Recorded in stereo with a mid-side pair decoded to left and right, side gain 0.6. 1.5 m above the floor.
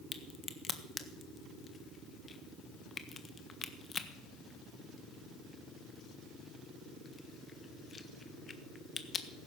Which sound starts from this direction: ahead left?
A crack, at 0.1 s.